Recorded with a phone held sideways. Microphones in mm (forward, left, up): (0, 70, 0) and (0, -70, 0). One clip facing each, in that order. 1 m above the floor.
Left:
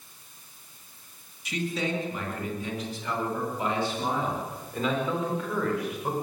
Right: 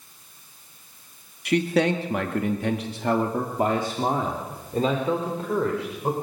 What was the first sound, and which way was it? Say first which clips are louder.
A man speaking: right 9 dB; 60° right (ahead or behind).